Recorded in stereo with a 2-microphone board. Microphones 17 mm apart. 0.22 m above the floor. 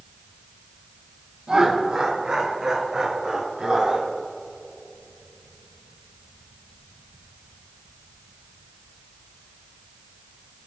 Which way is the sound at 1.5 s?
60° right (ahead or behind).